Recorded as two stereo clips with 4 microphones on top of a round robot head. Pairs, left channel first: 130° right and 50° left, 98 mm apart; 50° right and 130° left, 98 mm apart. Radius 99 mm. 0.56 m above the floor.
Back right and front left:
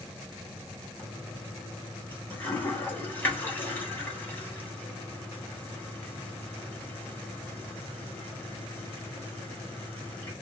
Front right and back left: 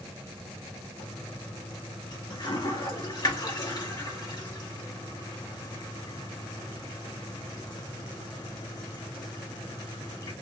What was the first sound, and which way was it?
A toilet flushing, 70° right.